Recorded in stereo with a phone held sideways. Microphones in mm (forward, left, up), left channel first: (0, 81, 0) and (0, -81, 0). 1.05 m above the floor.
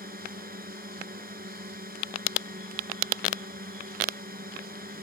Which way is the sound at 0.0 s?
65° right (ahead or behind).